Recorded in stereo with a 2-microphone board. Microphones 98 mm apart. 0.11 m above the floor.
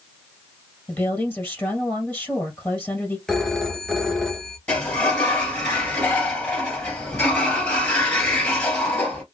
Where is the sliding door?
15° left (ahead or behind), 2.5 m.